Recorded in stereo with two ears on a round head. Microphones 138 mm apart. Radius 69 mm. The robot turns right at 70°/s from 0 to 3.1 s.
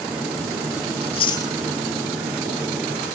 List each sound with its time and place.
1.0 s chewing: 45° left (ahead or behind), 1.7 m; by 1.5 s 15° left (ahead or behind), 1.7 m